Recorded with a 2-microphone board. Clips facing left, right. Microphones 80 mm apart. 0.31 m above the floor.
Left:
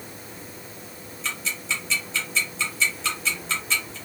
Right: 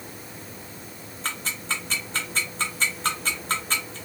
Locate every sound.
1.2 s ticking: 45° right (ahead or behind), 2 m